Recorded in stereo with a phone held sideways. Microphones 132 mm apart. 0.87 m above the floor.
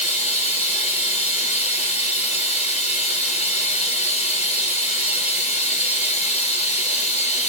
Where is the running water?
60° left (ahead or behind), 2.5 m.